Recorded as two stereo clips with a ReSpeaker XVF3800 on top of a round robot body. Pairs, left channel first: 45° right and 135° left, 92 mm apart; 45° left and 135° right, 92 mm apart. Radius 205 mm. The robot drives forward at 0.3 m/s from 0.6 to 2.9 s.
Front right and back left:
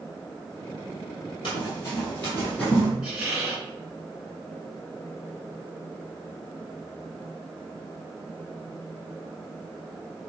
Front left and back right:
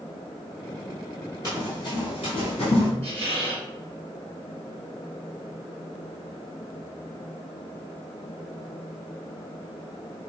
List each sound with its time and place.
1.4 s running footsteps: 10° right, 0.9 m; by 2.9 s 55° left, 1.0 m
3.0 s a squeak: 150° right, 1.7 m